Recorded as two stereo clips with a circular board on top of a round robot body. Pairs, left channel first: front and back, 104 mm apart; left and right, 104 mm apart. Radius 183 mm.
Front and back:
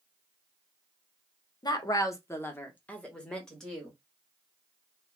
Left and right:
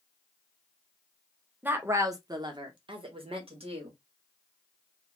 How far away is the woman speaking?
About 0.9 m.